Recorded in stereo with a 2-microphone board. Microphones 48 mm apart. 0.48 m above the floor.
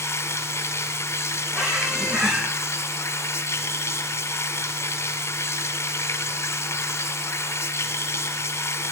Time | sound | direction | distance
0.0 | running water | 70° left (ahead or behind) | 1.8 m
1.5 | a squeak | 10° right (ahead or behind) | 5.5 m